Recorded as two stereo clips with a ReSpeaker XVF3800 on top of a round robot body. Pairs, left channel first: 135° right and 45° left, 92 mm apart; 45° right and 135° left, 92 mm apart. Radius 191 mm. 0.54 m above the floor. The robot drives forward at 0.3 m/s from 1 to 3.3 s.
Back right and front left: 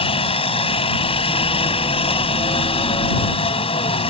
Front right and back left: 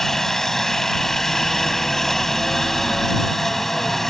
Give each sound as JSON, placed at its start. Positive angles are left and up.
{"t": 0.0, "sound": "a helicopter", "azimuth_deg": -130}